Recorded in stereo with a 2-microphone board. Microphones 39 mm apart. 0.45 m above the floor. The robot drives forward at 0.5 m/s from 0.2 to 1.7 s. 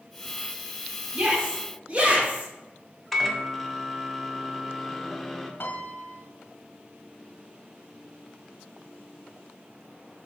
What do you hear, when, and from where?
1.1 s a shout: 30° right (ahead or behind), 1.5 m
3.1 s a microwave: 5° left (ahead or behind), 0.5 m
5.6 s a piano: 65° left (ahead or behind), 0.6 m